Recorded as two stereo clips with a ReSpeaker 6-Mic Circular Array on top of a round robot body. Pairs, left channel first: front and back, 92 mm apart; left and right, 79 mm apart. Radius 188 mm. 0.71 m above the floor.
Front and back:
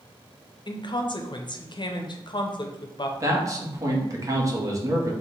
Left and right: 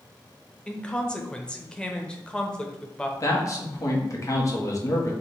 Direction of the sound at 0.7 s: 15° left.